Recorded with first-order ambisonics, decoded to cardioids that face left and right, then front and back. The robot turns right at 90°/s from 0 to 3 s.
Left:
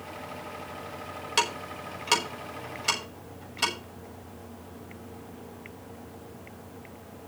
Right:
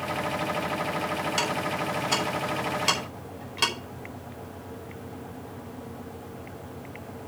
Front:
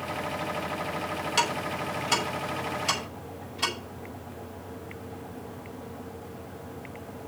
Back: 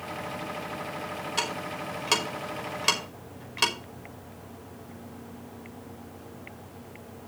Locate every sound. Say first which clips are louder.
1.4 s ticking: left 3 dB, front 4 dB; 65° left, 5 m; by 3.7 s 145° right, 5 m